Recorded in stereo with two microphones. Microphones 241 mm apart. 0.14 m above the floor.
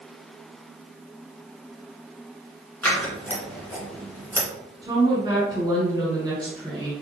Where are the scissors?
5° left (ahead or behind), 1.7 m.